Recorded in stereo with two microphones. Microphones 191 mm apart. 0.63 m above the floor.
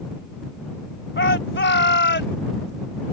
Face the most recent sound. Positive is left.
turn(degrees=65)  # may be behind; listen again after turning